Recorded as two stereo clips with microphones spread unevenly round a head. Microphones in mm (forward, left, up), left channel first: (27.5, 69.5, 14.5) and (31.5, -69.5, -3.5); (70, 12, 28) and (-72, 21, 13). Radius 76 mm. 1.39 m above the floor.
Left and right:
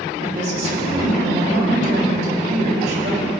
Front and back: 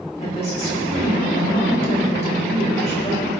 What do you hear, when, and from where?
0.2 s a woman speaking: 55° right, 4 m